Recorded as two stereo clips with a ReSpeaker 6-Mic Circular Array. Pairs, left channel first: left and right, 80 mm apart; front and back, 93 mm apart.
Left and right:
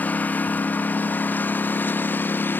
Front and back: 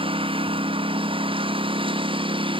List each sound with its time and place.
0.0 s a lawn mower: 160° left; by 2.6 s 155° left